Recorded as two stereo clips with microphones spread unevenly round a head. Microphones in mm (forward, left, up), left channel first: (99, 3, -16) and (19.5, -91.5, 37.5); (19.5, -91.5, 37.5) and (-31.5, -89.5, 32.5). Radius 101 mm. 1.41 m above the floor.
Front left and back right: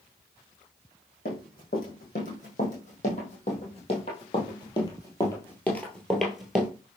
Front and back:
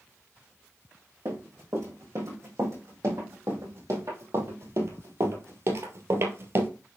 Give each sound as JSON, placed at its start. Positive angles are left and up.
{"t": 1.2, "sound": "running footsteps", "azimuth_deg": 105, "distance_m": 4.0}